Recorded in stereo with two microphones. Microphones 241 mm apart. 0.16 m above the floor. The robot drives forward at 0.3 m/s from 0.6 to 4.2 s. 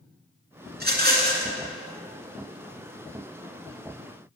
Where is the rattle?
40° right (ahead or behind), 2 m.